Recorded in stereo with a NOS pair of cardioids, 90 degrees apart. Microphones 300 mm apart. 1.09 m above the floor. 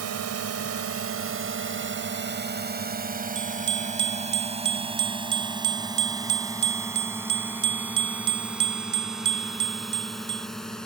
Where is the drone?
60° right; by 10.8 s straight ahead.